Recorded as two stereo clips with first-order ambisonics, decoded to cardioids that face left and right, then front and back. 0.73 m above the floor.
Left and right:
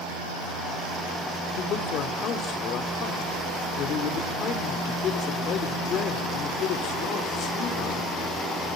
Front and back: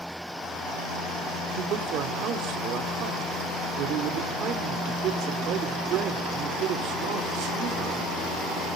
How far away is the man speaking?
About 2 m.